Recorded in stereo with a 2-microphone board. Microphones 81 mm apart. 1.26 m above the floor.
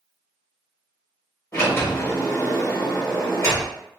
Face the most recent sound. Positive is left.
turn(degrees=30)  # may be behind; listen again after turning